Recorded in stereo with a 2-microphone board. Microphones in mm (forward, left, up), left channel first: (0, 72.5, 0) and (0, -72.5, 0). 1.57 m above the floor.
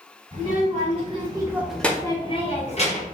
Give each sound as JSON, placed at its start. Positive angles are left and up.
{"t": 0.3, "sound": "a child speaking", "side_deg": -50, "distance_m": 1.9}